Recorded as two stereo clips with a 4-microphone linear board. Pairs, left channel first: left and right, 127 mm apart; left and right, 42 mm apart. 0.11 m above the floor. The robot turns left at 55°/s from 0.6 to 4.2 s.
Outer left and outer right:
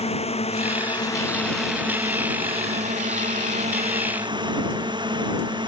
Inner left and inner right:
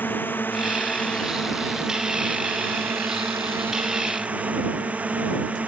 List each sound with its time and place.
0.0 s a drone: 55° left; by 5.7 s 145° right